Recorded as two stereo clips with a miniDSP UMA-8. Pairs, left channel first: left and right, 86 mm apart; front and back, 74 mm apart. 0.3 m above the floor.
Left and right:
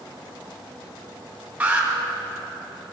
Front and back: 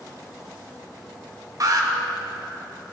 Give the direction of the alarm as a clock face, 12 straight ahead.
5 o'clock.